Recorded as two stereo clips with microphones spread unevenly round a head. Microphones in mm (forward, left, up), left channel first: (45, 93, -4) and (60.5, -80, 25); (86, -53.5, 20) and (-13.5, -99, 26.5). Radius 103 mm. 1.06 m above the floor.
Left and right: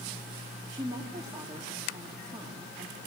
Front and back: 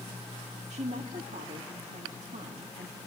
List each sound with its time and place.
0.7 s a woman speaking: 160° right, 1.9 m